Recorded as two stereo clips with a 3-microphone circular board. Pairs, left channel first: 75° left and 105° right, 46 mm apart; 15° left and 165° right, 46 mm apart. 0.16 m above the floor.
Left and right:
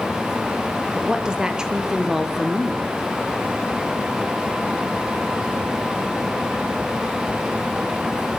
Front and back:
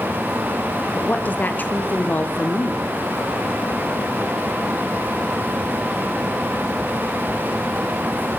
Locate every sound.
0.9 s a woman speaking: 35° right, 3 m; by 2.8 s 20° right, 2 m